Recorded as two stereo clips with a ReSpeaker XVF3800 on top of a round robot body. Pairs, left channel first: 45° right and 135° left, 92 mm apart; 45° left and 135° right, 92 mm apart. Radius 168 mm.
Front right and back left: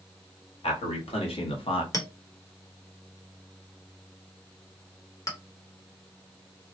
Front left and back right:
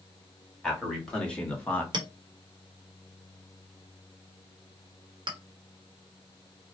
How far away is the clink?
About 1.2 m.